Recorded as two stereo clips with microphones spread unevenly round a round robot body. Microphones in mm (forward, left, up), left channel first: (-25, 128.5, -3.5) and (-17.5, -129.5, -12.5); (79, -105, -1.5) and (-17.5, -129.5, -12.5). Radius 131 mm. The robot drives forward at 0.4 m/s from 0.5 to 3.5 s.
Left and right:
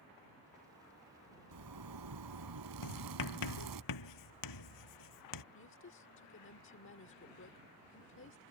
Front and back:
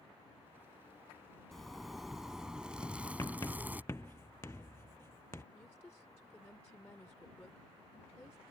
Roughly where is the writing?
Left.